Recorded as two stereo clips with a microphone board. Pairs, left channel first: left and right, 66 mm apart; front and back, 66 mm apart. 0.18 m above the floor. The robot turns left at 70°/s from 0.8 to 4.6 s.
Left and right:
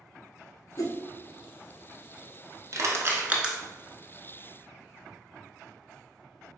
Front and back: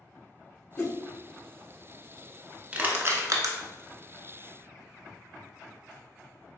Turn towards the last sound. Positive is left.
turn(degrees=120)